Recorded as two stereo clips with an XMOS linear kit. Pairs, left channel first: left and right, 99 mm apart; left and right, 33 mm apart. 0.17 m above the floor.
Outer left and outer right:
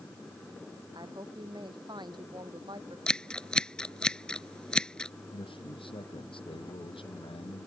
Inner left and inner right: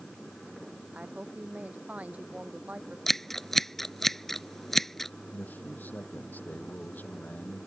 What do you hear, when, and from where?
0.9 s a woman speaking: 50° right (ahead or behind)
3.1 s scissors: 10° left (ahead or behind)
5.3 s a man speaking: 65° left (ahead or behind)